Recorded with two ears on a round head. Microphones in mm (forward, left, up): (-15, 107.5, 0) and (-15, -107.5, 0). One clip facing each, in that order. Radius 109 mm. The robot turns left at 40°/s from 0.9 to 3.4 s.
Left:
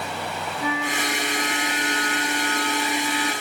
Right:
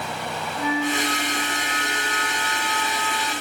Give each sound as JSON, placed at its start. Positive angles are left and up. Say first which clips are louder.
{"t": 0.6, "sound": "a flute", "louder": "right 4 dB", "azimuth_deg": -90, "distance_m": 7.0}